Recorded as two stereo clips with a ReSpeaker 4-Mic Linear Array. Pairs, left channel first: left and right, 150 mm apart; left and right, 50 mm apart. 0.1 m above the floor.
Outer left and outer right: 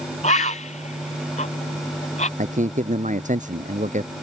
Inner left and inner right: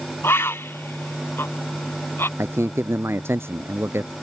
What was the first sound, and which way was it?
A bird, 55° left (ahead or behind).